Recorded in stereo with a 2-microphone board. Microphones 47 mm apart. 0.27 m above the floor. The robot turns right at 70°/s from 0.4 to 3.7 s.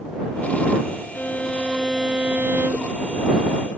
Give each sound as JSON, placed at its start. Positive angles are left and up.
{"t": 1.1, "sound": "a violin", "azimuth_deg": 125}